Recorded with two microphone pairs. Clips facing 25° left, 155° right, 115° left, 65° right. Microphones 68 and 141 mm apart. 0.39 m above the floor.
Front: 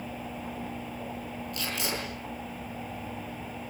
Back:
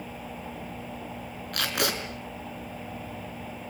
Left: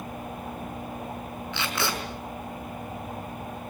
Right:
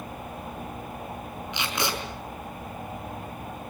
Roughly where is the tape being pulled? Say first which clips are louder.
Back 6 dB, even; behind right.